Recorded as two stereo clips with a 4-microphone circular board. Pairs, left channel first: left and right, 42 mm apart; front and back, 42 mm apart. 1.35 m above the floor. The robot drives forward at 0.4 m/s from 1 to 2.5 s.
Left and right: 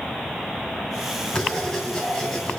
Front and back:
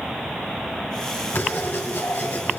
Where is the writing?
15° left, 2.5 m; by 2.6 s 20° left, 2.5 m.